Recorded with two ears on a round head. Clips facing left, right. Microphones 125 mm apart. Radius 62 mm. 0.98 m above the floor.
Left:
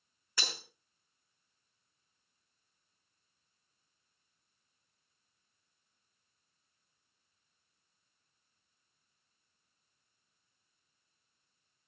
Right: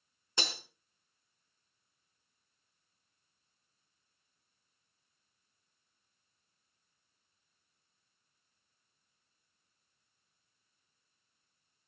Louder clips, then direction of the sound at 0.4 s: Right 3 dB; 20° right (ahead or behind).